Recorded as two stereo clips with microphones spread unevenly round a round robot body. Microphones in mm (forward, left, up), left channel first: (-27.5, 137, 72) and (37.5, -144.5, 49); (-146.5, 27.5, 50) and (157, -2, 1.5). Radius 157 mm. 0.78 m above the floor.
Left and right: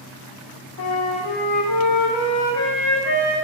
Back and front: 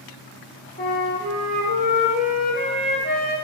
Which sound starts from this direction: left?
A flute, at 0.8 s.